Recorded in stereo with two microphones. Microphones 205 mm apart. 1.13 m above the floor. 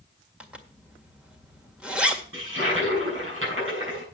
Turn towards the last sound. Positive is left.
turn(degrees=-80)